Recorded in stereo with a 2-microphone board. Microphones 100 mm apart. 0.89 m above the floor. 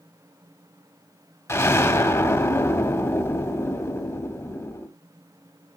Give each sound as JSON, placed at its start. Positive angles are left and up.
{"t": 1.5, "sound": "an explosion", "side_deg": 25, "distance_m": 0.9}